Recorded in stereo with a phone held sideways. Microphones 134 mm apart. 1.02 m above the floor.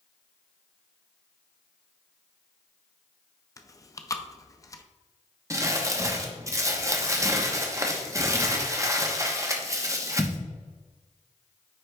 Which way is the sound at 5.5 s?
25° right (ahead or behind).